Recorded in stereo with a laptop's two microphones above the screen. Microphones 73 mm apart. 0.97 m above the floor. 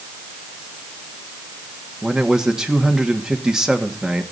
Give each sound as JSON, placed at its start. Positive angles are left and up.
{"t": 2.0, "sound": "a man speaking", "side_deg": -10, "distance_m": 1.8}